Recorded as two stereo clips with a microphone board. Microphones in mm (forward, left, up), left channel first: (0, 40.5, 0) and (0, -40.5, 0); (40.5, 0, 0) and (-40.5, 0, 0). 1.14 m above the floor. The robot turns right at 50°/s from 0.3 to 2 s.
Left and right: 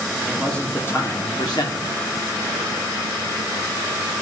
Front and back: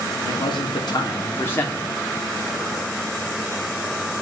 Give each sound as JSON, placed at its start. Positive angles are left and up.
{"t": 0.2, "sound": "a man speaking", "azimuth_deg": 0, "distance_m": 3.0}